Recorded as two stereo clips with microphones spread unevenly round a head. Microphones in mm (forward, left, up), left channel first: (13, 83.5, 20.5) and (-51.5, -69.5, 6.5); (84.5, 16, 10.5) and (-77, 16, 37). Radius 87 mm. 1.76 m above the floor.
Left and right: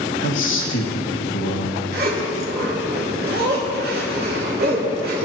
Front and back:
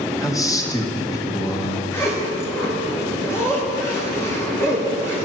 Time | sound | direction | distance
0.2 | a man speaking | 70° left | 1.2 m
1.9 | a zipper | 80° right | 2 m